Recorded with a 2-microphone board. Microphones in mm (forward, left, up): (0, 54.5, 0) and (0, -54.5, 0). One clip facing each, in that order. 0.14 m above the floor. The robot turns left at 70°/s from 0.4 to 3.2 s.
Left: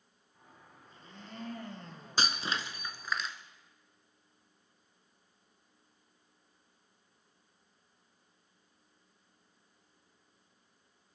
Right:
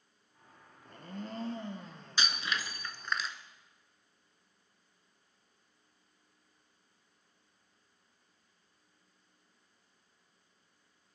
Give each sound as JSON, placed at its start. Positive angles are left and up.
{"t": 0.8, "sound": "a blender", "azimuth_deg": -105, "distance_m": 1.6}
{"t": 2.2, "sound": "breaking glass", "azimuth_deg": 70, "distance_m": 1.0}